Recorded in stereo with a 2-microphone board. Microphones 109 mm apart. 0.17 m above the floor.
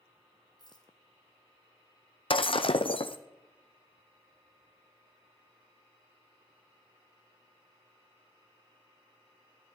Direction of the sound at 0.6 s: 40° left (ahead or behind).